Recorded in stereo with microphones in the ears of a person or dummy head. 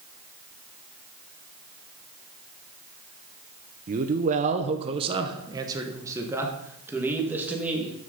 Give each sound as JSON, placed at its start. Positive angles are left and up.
{"t": 3.9, "sound": "a man speaking", "side_deg": -35, "distance_m": 0.7}